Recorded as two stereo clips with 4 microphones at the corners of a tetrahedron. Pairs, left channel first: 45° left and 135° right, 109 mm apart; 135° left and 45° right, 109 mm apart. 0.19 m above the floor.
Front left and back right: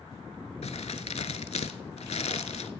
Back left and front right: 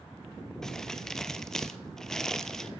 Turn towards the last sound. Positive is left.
turn(degrees=50)